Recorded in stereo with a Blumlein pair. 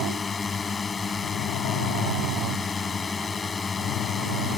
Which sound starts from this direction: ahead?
A drone, at 0.0 s.